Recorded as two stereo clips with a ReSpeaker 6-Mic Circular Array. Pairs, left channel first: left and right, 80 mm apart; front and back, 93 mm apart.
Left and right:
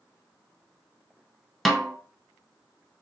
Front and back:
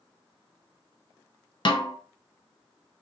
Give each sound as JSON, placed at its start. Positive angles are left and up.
{"t": 1.6, "sound": "a snare drum", "azimuth_deg": 0, "distance_m": 0.6}